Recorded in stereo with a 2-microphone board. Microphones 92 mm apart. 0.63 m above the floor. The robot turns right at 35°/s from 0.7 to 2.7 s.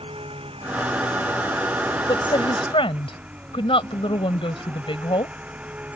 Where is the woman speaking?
60° left (ahead or behind); by 5.4 s 75° left (ahead or behind).